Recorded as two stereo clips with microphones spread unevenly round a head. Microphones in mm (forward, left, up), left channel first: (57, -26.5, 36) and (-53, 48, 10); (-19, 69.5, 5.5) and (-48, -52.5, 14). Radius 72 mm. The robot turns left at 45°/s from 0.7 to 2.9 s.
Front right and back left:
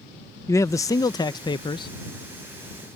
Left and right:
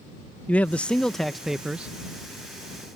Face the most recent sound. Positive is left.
turn(degrees=-75)